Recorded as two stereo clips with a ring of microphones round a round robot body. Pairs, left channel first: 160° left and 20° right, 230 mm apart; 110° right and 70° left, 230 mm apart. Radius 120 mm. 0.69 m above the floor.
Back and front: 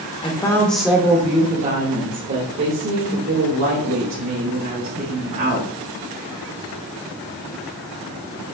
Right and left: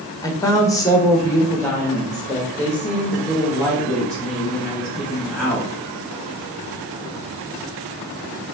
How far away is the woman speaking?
About 0.9 m.